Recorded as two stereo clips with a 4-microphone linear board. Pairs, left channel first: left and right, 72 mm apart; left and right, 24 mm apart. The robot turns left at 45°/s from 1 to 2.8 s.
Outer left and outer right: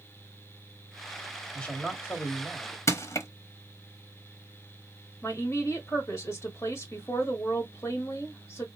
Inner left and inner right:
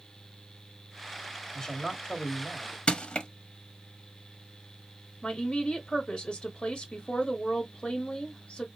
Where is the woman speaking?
40° left (ahead or behind), 1.2 m.